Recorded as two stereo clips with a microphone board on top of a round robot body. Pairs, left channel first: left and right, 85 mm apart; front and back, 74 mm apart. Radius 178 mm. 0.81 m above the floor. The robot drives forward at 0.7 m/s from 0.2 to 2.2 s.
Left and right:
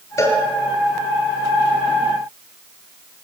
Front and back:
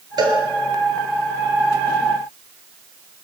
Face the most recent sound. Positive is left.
turn(degrees=150)